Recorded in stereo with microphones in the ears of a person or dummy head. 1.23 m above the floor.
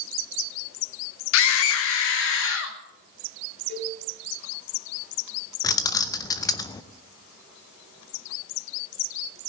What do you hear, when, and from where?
1.3 s a scream: 70° left (ahead or behind), 1.4 m
3.7 s a cowbell: 55° left (ahead or behind), 8 m
5.6 s keys jangling: 20° left (ahead or behind), 0.6 m